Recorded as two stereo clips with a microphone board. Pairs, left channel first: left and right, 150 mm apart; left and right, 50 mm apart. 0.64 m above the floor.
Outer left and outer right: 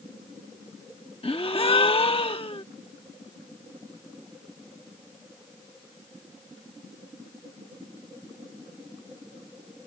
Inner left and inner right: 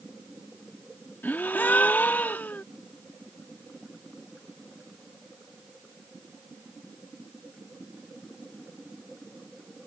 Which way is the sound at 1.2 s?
40° left (ahead or behind).